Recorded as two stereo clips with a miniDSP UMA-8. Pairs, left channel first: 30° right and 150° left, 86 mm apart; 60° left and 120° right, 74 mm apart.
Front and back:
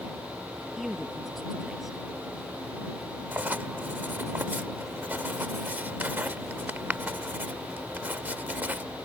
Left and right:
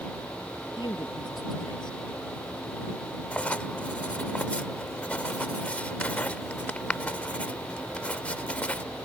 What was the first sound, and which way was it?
A man speaking, 65° left.